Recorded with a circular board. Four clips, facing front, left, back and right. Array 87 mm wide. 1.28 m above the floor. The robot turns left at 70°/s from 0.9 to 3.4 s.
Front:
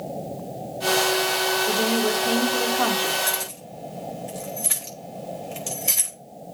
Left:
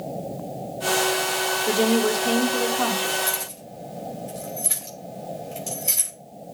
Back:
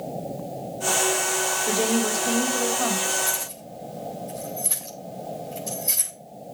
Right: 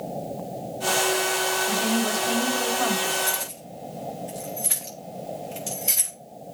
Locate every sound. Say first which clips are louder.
1.7 s a woman speaking: left 4 dB, back 1 dB; 120° left, 4 m; by 3.2 s 15° left, 4 m
3.3 s keys jangling: even, front 2 dB; 15° left, 5 m; by 6.1 s 5° left, 5 m